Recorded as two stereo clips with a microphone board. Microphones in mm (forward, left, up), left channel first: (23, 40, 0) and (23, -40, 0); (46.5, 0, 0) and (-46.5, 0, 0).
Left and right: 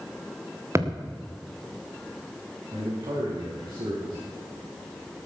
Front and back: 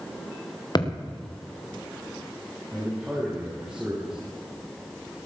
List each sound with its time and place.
0.8 s a thud: 40° right, 3 m
2.7 s a man speaking: 105° right, 8.5 m